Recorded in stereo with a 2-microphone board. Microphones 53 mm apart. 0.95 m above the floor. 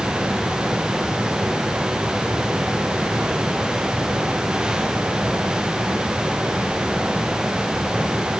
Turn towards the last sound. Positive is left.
No sound to turn to.